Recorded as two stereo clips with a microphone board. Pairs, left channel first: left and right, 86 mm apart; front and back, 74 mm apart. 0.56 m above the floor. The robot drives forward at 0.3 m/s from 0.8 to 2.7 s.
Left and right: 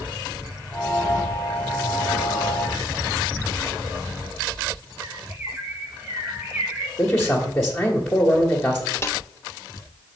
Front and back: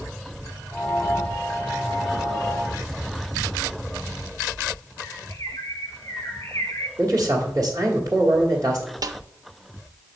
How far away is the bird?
About 1.0 m.